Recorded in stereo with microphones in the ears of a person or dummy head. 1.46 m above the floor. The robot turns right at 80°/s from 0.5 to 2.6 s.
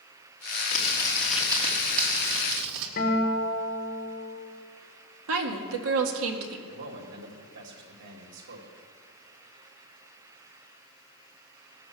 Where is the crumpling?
135° left, 1.9 m; by 2.9 s 75° right, 1.9 m.